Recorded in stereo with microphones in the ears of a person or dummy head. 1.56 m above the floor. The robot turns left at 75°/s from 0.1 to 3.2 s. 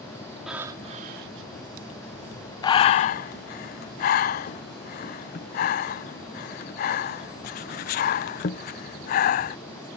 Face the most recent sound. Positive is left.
turn(degrees=40)  # may be behind; listen again after turning